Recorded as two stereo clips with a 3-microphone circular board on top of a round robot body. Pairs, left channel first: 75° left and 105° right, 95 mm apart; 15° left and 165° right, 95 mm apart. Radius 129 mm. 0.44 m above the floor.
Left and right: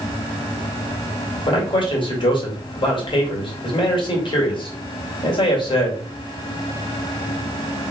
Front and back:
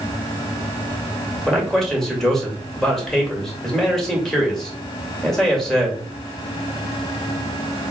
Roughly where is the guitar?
No guitar in this recording.